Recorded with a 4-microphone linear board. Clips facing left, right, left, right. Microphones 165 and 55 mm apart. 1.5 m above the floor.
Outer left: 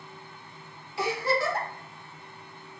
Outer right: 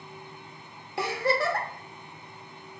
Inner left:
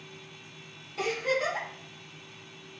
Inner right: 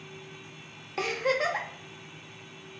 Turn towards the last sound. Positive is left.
turn(degrees=-60)  # may be behind; listen again after turning